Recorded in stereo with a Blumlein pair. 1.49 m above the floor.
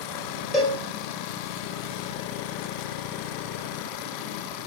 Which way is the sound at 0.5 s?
5° left.